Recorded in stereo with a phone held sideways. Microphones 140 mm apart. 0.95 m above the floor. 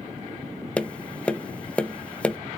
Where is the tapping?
10° left (ahead or behind), 0.6 m.